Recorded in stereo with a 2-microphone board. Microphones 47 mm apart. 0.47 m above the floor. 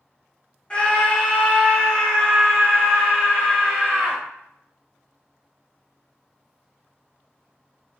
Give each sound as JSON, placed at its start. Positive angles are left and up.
{"t": 0.7, "sound": "a scream", "side_deg": 25, "distance_m": 1.1}